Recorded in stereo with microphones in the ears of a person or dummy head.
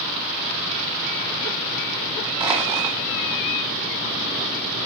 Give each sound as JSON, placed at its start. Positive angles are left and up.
{"t": 2.4, "sound": "crushing", "side_deg": -15, "distance_m": 1.7}